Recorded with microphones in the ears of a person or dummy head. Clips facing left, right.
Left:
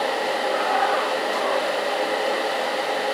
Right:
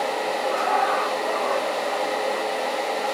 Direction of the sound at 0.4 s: 50° right (ahead or behind).